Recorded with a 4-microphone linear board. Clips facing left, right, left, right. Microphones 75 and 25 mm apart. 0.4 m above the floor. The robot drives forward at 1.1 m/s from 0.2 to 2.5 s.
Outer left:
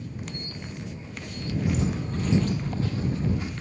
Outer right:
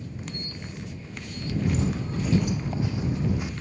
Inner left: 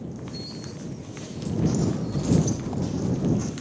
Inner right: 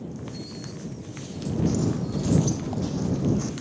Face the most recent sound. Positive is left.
turn(degrees=-20)  # may be behind; listen again after turning